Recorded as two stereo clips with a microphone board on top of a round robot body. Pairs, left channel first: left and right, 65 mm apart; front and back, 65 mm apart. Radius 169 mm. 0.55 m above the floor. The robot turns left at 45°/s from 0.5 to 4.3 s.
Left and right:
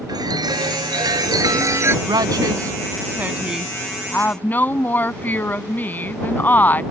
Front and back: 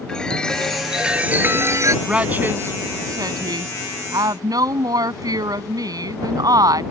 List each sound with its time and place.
0.1 s a chime: 80° right; by 1.9 s 145° right
2.0 s a woman speaking: 105° right; by 6.8 s 155° left